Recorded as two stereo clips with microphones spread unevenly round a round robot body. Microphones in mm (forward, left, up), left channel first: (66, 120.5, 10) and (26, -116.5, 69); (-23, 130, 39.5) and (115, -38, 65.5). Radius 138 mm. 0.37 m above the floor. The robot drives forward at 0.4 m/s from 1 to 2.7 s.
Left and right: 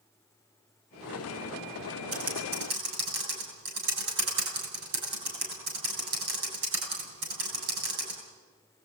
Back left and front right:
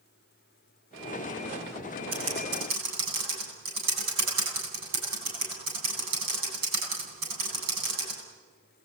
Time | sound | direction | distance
2.1 | typing on a keyboard | 70° right | 9 m